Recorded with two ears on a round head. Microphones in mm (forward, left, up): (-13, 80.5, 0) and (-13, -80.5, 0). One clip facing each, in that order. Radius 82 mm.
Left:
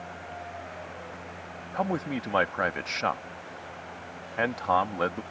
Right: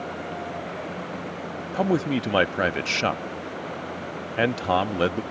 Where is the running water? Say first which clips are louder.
Right 8 dB; 60° right (ahead or behind).